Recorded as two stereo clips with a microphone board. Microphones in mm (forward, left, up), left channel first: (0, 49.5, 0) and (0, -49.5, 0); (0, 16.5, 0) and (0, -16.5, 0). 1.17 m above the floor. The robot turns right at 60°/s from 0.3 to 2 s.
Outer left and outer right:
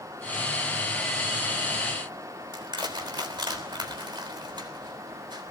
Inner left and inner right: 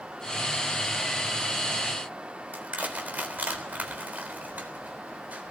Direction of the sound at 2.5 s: 50° right (ahead or behind).